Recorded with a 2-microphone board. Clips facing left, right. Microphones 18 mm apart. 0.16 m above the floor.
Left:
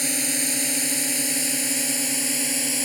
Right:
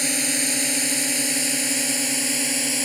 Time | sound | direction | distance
0.0 | a drone | 10° right (ahead or behind) | ?